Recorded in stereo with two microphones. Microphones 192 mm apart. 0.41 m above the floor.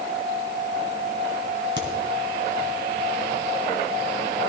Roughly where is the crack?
Right.